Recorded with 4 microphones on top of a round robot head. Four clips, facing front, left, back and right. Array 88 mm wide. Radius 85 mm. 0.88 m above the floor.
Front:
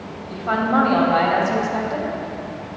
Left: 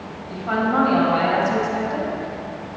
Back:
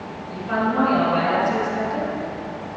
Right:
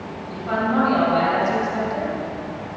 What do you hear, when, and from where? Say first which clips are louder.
0.3 s a woman speaking: left 1 dB, front 3 dB; 10° left, 3 m